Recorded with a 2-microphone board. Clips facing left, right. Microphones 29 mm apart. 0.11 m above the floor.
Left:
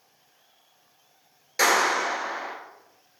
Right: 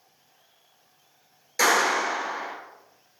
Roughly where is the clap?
Centre.